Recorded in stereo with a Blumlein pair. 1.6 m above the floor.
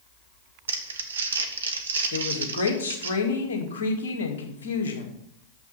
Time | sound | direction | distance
0.7 | crumpling | 70° right | 1.0 m
2.1 | a woman speaking | 60° left | 2 m